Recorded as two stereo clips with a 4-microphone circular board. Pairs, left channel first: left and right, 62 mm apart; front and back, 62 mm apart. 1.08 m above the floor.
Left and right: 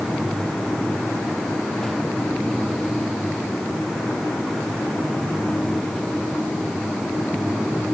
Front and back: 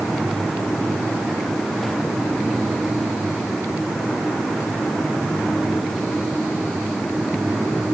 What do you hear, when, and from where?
Only background noise.